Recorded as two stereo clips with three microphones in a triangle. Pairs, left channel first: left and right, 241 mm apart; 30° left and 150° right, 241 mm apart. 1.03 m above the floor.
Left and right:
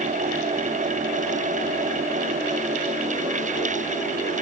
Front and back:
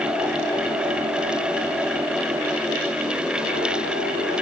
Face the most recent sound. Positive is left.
No sound to turn to.